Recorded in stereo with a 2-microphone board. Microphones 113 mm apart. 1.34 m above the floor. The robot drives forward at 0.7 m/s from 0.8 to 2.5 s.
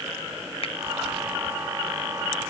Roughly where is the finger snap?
Left.